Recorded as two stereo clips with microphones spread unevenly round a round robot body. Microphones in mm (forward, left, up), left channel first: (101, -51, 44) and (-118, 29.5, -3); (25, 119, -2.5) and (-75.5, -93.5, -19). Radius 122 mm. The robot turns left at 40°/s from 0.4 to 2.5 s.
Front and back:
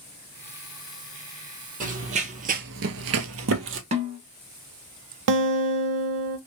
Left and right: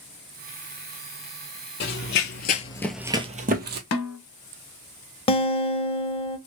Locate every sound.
1.8 s running footsteps: 100° left, 0.9 m; by 3.8 s 160° right, 0.9 m
3.9 s a snare drum: 90° left, 0.8 m
5.3 s a guitar: 135° left, 0.6 m